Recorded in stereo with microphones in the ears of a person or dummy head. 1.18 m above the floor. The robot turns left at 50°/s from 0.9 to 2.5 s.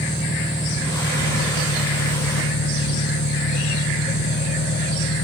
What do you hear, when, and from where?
0.0 s an engine running: 165° left; by 5.2 s 85° left